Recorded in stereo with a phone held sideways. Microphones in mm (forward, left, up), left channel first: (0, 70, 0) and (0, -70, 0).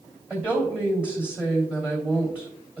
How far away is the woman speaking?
About 2.5 m.